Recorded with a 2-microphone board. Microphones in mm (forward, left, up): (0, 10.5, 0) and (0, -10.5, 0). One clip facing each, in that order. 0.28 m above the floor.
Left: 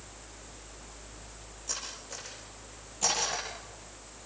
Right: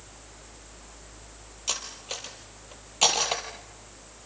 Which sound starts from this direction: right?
Cutlery clinking, at 1.7 s.